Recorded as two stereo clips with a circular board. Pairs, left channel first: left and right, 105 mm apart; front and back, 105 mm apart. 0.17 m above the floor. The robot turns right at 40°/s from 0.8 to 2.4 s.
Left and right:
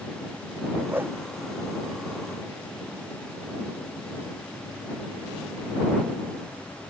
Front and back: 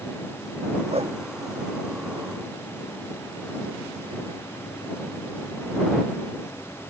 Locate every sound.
0.9 s a whoosh: 165° right; by 1.2 s 155° right